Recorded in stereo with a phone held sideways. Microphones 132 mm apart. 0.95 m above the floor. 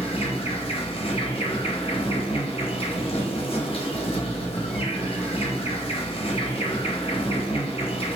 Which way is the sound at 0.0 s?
45° left (ahead or behind).